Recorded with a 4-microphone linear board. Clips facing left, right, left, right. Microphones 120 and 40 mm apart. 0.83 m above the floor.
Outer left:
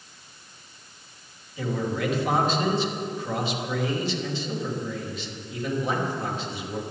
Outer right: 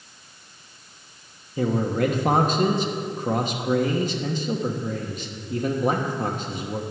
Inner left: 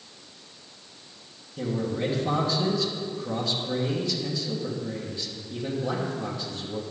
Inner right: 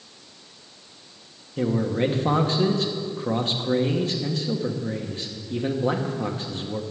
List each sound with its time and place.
1.6 s a man speaking: 45° right (ahead or behind), 1.2 m